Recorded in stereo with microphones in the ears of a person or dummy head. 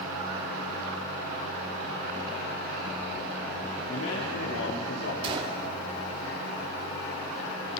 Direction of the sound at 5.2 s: 30° right (ahead or behind).